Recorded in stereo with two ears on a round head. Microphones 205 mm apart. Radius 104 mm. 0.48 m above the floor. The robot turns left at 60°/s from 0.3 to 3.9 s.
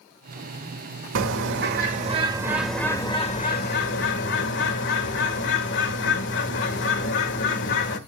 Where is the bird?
90° right, 1.5 m; by 8.0 s 105° left, 1.5 m.